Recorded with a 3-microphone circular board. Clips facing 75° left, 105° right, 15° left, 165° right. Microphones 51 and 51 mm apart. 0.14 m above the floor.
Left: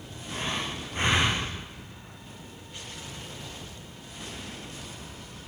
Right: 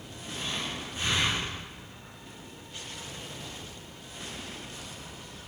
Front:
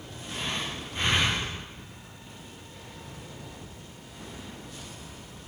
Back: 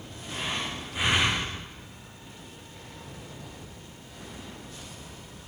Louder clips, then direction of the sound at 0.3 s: Left 3 dB, back 1 dB; 115° left.